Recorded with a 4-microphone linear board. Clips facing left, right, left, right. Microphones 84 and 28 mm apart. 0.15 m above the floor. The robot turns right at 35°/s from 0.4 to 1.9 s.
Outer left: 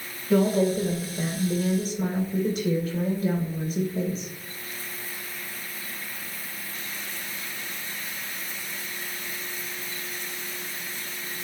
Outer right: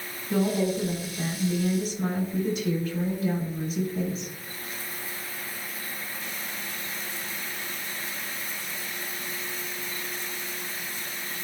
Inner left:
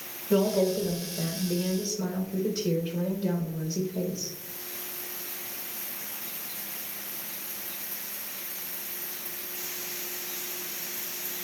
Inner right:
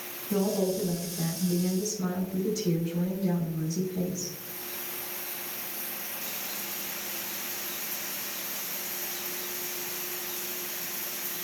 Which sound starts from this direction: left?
A woman speaking, at 0.3 s.